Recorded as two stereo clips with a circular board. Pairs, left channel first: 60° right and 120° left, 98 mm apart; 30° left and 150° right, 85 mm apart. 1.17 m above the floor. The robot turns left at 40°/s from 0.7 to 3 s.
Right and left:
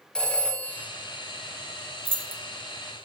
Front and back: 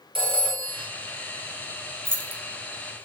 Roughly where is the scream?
I don't hear a scream.